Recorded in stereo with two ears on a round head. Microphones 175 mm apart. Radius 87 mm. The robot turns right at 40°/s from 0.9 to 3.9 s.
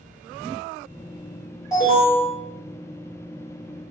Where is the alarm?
20° left (ahead or behind), 1.7 m; by 2.3 s 25° left (ahead or behind), 1.7 m.